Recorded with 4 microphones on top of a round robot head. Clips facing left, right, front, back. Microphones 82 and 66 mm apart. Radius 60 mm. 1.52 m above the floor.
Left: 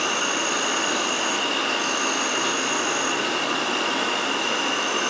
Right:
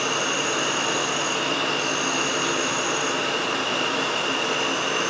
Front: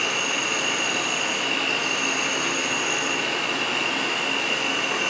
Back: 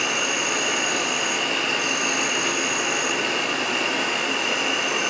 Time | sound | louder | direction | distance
0.0 | an insect | even, back 1 dB | 110° left | 2.5 m